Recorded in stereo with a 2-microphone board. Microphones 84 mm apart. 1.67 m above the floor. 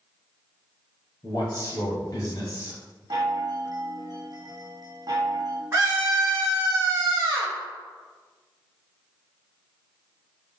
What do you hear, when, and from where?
1.2 s a man speaking: 45° left (ahead or behind), 1.6 m
3.1 s a chime: 50° right (ahead or behind), 0.7 m
5.7 s a scream: 35° right (ahead or behind), 1.1 m